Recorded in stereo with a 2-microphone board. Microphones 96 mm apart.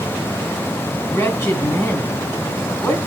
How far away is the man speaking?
About 1.9 m.